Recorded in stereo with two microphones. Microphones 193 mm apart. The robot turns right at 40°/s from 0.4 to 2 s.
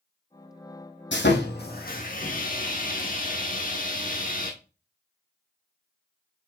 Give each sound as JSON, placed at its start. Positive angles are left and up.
{"t": 1.1, "sound": "sawing", "azimuth_deg": 95, "distance_m": 1.7}